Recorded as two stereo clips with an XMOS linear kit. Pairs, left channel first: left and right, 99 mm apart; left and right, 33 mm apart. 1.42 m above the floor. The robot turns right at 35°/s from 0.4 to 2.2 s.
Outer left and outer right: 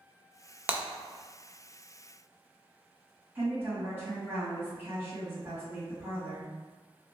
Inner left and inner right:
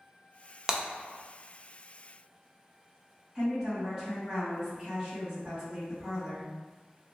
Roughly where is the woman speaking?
Right.